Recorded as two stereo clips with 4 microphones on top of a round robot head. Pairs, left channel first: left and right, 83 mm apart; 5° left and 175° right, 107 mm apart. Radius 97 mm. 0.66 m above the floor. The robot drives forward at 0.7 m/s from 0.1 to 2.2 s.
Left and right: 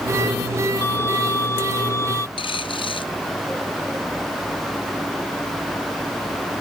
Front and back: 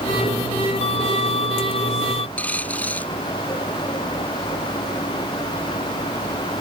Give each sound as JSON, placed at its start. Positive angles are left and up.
{"t": 0.8, "sound": "a violin", "azimuth_deg": 30}
{"t": 2.4, "sound": "a dropped coin", "azimuth_deg": 80}